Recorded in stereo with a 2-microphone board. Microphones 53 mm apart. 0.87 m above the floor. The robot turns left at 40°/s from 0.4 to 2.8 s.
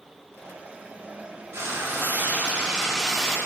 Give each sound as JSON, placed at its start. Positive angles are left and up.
{"t": 1.5, "sound": "frying", "azimuth_deg": -120, "distance_m": 1.5}